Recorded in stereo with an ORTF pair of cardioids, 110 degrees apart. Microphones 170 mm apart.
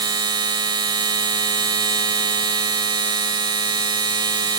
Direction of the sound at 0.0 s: 25° right.